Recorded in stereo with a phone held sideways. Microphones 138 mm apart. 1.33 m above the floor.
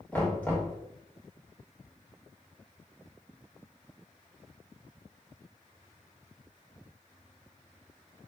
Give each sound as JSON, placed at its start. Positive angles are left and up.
{"t": 0.1, "sound": "knocking", "side_deg": 10, "distance_m": 1.7}